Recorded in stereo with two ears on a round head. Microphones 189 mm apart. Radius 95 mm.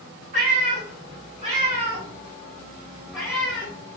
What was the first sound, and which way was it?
A cat meowing, 40° right (ahead or behind).